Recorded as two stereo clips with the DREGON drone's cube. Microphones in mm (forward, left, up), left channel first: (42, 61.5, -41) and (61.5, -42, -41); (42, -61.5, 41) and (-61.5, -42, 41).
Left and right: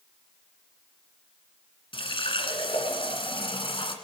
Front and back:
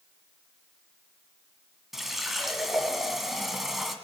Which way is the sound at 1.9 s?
80° left.